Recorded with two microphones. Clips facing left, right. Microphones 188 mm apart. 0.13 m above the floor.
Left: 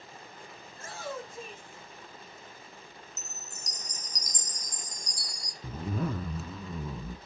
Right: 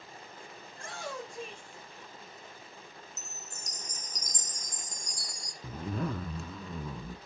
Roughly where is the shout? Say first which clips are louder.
Left 2 dB; centre.